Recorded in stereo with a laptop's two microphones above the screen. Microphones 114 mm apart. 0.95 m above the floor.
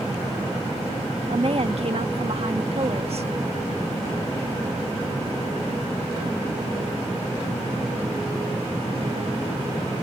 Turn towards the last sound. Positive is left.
turn(degrees=-55)  # may be behind; listen again after turning